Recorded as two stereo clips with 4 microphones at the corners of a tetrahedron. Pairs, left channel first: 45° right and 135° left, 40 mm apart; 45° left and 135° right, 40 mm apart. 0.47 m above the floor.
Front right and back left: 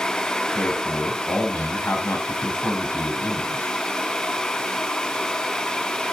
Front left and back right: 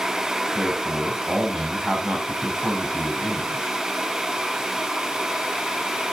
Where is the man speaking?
60° right, 3.5 m.